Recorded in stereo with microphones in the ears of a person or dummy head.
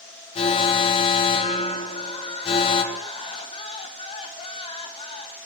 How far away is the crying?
About 1.0 m.